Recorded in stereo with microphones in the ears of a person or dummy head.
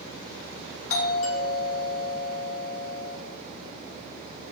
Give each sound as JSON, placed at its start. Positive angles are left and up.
{"t": 0.9, "sound": "a doorbell", "side_deg": 65, "distance_m": 3.0}